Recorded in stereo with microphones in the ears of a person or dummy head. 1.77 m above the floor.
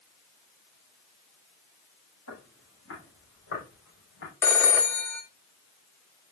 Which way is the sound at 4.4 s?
10° left (ahead or behind).